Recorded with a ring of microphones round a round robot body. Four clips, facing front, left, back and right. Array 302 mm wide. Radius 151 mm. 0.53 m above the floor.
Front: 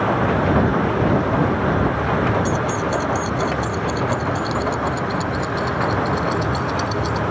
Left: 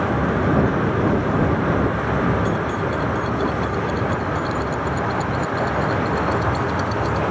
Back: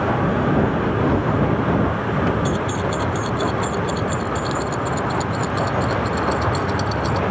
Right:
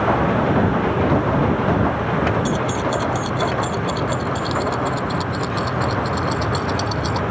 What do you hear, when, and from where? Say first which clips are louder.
2.5 s keys jangling: right 1 dB, front 1 dB; 85° right; by 7.2 s 90° right